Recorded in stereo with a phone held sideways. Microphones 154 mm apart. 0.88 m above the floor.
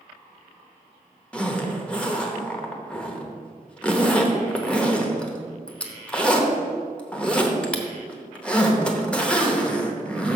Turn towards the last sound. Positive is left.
turn(degrees=5)  # may be behind; listen again after turning